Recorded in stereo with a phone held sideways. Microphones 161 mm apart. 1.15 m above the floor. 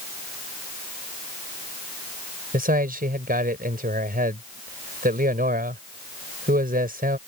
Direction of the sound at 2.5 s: 70° right (ahead or behind).